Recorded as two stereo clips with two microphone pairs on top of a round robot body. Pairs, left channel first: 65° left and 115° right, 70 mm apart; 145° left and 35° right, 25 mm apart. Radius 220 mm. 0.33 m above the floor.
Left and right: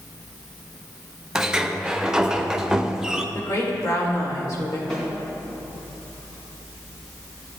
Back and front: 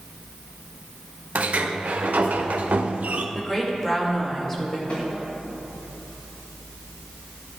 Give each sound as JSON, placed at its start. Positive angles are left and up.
{"t": 1.4, "sound": "a sliding door", "azimuth_deg": -35, "distance_m": 0.5}
{"t": 3.4, "sound": "a woman speaking", "azimuth_deg": 70, "distance_m": 2.5}
{"t": 4.9, "sound": "a snare drum", "azimuth_deg": 145, "distance_m": 3.0}